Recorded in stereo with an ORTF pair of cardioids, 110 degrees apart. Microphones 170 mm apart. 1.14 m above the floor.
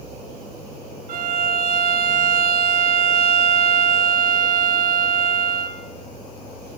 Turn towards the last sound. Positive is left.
turn(degrees=-55)